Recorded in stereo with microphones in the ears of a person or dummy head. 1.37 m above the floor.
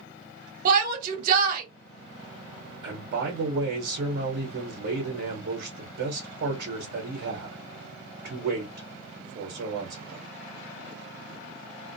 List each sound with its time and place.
0.7 s a shout: 50° right (ahead or behind), 1.0 m
2.8 s a man speaking: 60° right (ahead or behind), 1.0 m